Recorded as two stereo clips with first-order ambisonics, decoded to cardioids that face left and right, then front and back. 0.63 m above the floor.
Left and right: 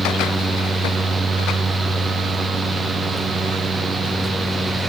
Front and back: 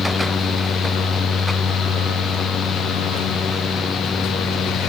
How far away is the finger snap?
I don't hear a finger snap.